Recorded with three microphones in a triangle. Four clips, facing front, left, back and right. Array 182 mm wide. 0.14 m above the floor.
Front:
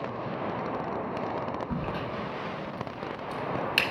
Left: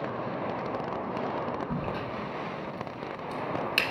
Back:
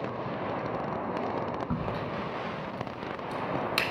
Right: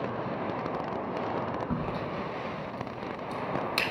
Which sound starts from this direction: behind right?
A crack, at 1.7 s.